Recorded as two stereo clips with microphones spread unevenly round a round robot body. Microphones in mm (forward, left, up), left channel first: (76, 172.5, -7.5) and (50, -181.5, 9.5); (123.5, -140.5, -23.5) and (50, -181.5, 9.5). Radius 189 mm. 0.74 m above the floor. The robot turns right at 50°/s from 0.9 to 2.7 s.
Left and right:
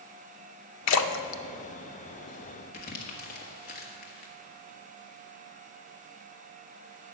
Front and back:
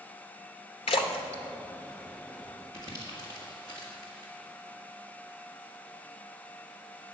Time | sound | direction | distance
0.9 | a splash | 35° left | 0.7 m
2.7 | crumpling | 130° left | 1.3 m